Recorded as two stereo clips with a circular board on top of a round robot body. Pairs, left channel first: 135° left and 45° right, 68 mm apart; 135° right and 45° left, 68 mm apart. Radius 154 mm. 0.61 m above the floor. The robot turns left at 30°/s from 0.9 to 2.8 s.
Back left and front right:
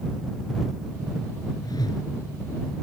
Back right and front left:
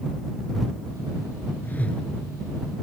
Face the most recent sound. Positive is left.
turn(degrees=125)